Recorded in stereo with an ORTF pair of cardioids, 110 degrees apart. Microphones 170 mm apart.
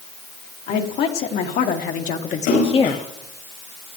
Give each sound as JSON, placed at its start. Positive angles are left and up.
{"t": 0.7, "sound": "a woman speaking", "azimuth_deg": 70, "distance_m": 3.0}
{"t": 2.5, "sound": "a splash", "azimuth_deg": 70, "distance_m": 7.5}